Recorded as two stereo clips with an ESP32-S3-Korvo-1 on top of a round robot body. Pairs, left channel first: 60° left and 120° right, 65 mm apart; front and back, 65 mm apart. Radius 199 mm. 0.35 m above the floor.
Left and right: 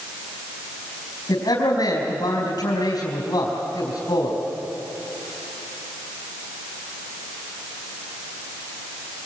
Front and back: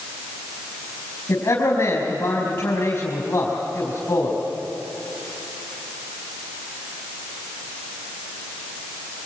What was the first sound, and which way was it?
A man speaking, 35° left.